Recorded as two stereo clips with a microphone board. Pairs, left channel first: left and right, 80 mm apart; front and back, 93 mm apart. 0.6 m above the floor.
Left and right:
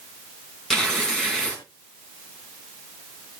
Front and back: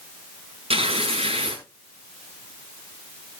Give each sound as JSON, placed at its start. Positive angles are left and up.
{"t": 0.7, "sound": "tearing paper", "azimuth_deg": 175, "distance_m": 4.5}